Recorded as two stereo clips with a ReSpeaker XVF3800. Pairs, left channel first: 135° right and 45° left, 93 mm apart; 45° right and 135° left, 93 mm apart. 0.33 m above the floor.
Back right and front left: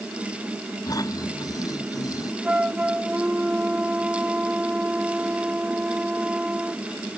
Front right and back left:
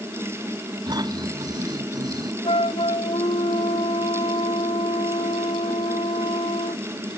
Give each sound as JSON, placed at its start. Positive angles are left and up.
{"t": 0.9, "sound": "snoring", "azimuth_deg": 180}
{"t": 2.4, "sound": "a flute", "azimuth_deg": -30}